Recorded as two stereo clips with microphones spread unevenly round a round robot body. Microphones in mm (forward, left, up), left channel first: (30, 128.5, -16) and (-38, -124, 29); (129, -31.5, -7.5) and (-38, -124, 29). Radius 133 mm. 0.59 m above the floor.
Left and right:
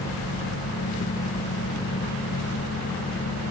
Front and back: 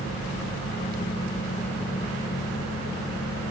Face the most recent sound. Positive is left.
No sound to turn to.